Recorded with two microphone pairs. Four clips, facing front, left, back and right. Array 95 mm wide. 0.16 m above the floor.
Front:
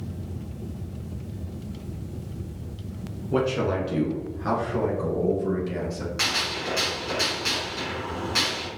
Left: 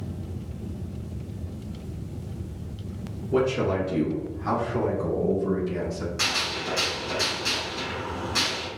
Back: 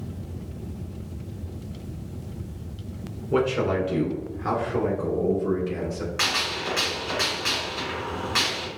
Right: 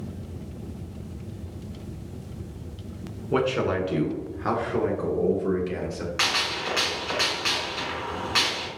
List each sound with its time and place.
3.3 s a man speaking: 110° right, 1.4 m; by 6.1 s 85° right, 2.5 m
6.2 s a gunshot: 105° right, 1.9 m